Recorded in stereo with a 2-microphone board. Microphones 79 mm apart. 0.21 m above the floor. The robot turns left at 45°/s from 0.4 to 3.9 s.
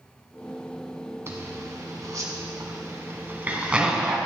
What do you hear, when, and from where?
1.3 s a zipper: 35° right (ahead or behind), 1.3 m; by 4.2 s 10° right (ahead or behind), 1.3 m